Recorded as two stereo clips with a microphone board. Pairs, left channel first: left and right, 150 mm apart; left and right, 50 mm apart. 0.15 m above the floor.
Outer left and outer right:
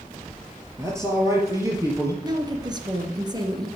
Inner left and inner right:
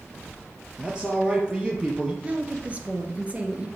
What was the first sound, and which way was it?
A man speaking, 20° right (ahead or behind).